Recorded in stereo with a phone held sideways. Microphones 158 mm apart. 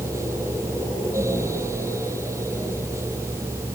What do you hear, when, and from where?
0.0 s a fan: 20° right (ahead or behind)